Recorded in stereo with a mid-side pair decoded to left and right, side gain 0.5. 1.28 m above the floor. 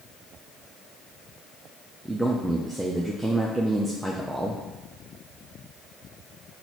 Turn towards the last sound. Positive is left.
turn(degrees=-5)